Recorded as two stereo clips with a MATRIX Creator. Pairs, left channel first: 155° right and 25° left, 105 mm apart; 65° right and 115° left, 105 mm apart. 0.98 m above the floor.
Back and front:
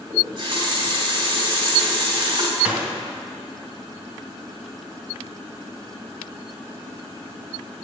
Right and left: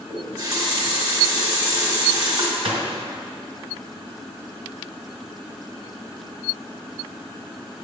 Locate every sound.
0.1 s a running tap: 65° left, 2 m
2.6 s a gunshot: 100° left, 1.8 m